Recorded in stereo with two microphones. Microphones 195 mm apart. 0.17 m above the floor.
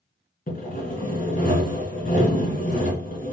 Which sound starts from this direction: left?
Sawing, at 0.5 s.